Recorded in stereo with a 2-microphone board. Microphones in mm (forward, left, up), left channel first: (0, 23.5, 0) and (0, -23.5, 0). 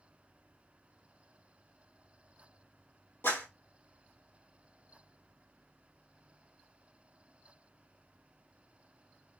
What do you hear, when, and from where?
3.2 s a clap: 60° left (ahead or behind), 3 m